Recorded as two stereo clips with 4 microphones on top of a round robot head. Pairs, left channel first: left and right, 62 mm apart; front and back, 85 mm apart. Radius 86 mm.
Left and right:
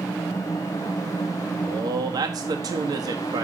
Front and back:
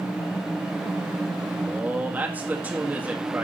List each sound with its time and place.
1.6 s a man speaking: 105° right, 1.7 m